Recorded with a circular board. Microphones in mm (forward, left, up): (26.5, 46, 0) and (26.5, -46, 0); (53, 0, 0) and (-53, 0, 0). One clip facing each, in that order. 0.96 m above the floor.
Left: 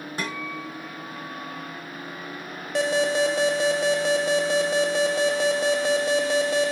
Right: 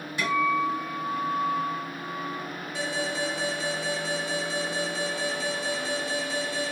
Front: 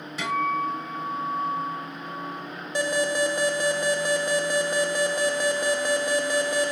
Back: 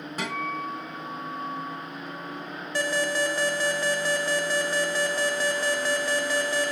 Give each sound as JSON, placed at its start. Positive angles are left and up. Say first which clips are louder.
{"t": 0.2, "sound": "a guitar", "louder": "right 10 dB, front 6 dB", "azimuth_deg": 140, "distance_m": 2.0}
{"t": 2.8, "sound": "an alarm", "louder": "left 9 dB, front 2 dB", "azimuth_deg": 70, "distance_m": 0.9}